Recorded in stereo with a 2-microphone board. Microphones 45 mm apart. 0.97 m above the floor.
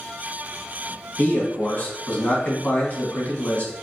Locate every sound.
1.2 s a man speaking: 35° left (ahead or behind), 1.3 m